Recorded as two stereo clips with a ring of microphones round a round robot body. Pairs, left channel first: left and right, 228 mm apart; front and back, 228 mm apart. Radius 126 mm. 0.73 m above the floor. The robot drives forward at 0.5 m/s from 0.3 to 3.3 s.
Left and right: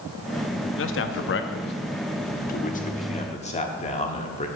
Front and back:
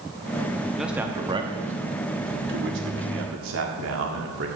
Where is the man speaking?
90° left, 0.9 m; by 4.5 s 150° left, 1.6 m.